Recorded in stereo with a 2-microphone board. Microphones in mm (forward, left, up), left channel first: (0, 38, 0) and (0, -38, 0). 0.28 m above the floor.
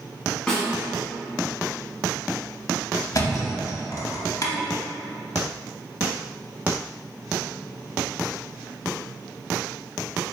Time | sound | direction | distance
0.5 | a snare drum | 10° left (ahead or behind) | 1.1 m
3.1 | a thud | 45° left (ahead or behind) | 0.7 m